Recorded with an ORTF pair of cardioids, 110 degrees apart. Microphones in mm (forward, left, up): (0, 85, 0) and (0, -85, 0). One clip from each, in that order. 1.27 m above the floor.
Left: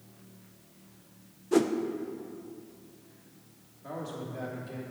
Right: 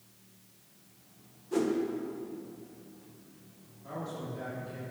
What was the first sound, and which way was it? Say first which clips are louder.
A whoosh: left 4 dB; 35° left.